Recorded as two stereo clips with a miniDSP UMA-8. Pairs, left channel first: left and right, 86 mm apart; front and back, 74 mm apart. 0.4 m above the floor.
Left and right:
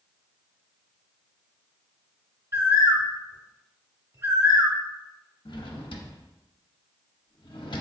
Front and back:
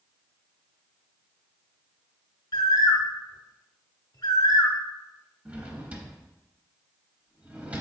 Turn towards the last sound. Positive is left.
turn(degrees=110)